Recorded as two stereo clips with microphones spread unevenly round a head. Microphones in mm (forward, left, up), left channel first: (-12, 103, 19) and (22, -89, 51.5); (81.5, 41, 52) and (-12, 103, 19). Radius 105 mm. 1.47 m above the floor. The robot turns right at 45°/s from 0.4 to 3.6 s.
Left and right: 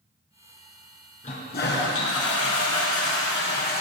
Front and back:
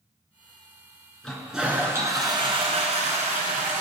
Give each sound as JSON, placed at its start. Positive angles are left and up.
{"t": 1.2, "sound": "a toilet flushing", "azimuth_deg": 40, "distance_m": 3.5}